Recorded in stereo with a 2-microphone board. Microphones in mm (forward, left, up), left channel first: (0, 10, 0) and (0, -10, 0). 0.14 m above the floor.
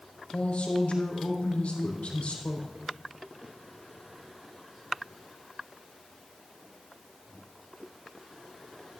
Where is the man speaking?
75° left (ahead or behind), 4.5 m.